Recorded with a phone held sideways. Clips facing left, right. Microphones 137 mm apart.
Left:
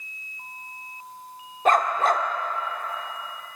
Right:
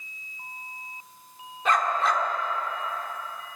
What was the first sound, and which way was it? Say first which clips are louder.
A dog barking: left 4 dB; 45° left (ahead or behind).